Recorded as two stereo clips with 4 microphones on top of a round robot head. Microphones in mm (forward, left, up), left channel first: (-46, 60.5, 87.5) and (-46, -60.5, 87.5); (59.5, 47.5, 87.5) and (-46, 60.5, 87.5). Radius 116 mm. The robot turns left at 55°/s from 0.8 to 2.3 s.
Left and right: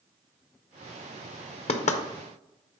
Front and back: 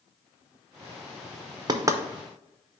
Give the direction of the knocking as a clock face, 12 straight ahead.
8 o'clock.